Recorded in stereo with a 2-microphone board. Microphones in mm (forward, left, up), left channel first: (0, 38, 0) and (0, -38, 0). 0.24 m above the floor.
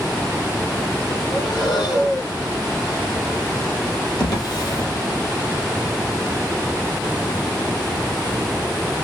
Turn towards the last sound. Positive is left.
turn(degrees=55)  # may be behind; listen again after turning